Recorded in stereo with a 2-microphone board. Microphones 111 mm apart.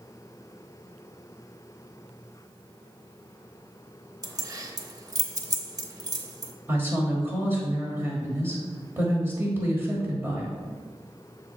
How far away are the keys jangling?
About 0.6 m.